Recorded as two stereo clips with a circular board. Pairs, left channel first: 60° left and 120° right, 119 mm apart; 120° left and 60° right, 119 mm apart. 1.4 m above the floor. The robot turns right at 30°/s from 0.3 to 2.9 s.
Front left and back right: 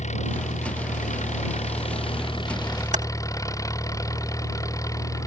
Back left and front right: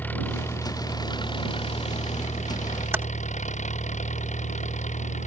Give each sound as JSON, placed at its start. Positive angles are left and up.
{"t": 0.0, "sound": "an engine running", "azimuth_deg": 45}
{"t": 2.9, "sound": "typing on a keyboard", "azimuth_deg": -130}